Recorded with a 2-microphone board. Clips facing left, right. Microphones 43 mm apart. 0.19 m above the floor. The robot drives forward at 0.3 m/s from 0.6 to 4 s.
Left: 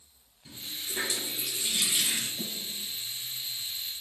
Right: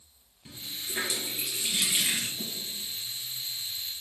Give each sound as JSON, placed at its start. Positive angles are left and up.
{"t": 0.5, "sound": "a running tap", "side_deg": -30, "distance_m": 3.0}
{"t": 2.4, "sound": "a snare drum", "side_deg": 55, "distance_m": 3.5}